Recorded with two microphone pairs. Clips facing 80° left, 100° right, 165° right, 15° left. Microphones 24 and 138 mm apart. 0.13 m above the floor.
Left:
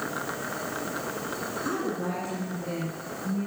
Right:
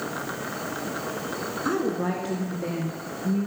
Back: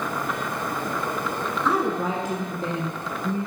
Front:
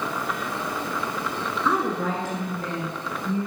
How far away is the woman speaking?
About 1.0 m.